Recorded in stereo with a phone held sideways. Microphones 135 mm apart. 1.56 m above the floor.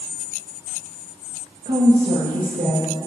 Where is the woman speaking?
70° right (ahead or behind), 2 m; by 3.1 s 75° right (ahead or behind), 3.5 m.